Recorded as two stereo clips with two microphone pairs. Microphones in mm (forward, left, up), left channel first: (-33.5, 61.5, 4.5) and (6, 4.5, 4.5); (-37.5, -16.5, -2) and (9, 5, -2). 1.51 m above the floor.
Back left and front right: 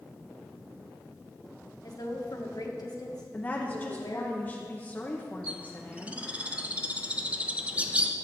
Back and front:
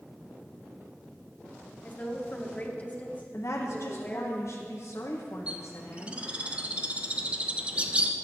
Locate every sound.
1.8 s a woman speaking: 150° left, 1.6 m
3.3 s a woman speaking: 170° right, 0.9 m
5.5 s a bird: straight ahead, 0.6 m